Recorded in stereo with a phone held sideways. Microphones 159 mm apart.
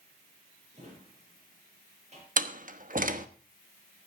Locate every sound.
0.7 s a drawer: 45° right (ahead or behind), 7 m
2.4 s a door slam: 60° right (ahead or behind), 1.2 m